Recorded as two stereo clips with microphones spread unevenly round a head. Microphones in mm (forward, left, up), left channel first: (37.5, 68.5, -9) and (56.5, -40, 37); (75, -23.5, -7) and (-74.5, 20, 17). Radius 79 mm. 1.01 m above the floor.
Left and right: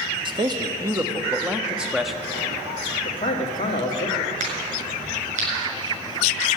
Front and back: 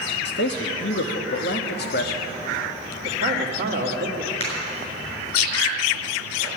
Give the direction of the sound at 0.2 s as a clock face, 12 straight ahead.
1 o'clock.